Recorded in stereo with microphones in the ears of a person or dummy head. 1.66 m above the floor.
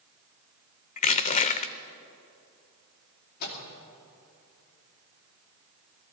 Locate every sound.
1.0 s crushing: 35° left (ahead or behind), 0.7 m
3.4 s a microwave: 50° left (ahead or behind), 2.5 m